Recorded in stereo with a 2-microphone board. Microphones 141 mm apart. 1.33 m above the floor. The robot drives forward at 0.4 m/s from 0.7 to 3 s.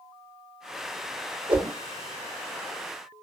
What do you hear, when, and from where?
1.5 s a whoosh: 40° right (ahead or behind), 1.1 m